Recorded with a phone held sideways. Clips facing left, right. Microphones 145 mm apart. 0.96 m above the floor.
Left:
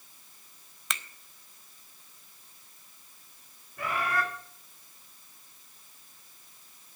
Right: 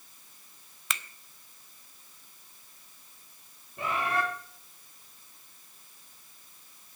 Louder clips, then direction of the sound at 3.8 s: Right 1 dB; 25° right (ahead or behind).